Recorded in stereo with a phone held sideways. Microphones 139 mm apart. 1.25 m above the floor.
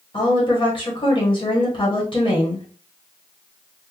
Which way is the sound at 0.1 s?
40° left (ahead or behind).